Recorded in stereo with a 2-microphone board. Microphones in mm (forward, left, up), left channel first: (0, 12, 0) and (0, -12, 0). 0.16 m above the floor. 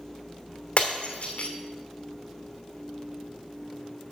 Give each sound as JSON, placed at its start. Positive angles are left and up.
{"t": 0.8, "sound": "breaking glass", "side_deg": 55, "distance_m": 1.2}